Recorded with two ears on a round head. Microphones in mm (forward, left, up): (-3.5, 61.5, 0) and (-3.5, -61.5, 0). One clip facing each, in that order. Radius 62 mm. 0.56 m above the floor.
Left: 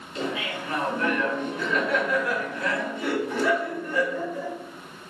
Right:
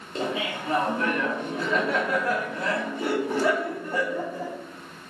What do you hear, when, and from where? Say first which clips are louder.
0.1 s laughter: right 1 dB; 30° right (ahead or behind), 0.6 m